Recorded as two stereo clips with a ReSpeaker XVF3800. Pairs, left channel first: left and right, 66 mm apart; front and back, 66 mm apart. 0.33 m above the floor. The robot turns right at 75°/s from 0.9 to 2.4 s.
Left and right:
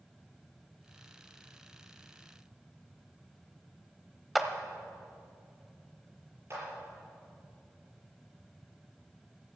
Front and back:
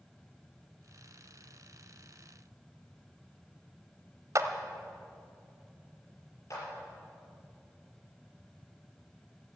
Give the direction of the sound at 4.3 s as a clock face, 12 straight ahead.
6 o'clock.